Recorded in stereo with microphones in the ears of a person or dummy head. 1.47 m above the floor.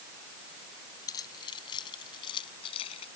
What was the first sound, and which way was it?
Keys jangling, 25° left (ahead or behind).